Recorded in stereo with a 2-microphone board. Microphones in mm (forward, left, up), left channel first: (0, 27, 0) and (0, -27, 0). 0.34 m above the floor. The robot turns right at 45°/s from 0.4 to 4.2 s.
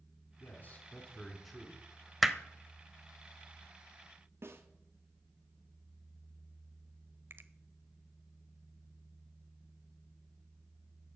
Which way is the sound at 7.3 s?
45° right (ahead or behind).